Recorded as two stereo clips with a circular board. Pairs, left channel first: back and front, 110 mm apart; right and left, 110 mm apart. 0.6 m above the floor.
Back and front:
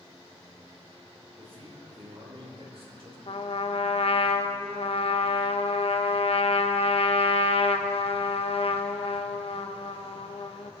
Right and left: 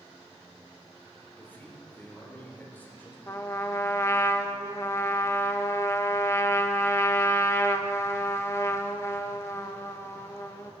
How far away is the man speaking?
About 2.5 m.